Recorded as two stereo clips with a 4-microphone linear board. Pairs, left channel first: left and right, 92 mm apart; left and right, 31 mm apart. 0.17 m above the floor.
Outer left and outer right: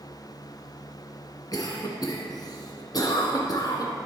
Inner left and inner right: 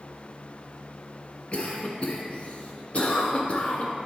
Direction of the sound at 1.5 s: 45° left (ahead or behind).